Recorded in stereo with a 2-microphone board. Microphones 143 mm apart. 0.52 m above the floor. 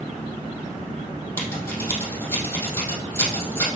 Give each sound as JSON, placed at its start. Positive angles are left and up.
{"t": 1.4, "sound": "scissors", "side_deg": 20, "distance_m": 3.0}